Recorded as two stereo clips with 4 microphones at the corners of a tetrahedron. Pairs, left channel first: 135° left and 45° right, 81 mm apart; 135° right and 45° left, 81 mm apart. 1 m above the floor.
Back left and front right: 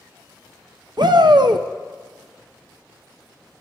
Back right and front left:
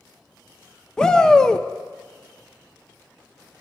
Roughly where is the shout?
Ahead right.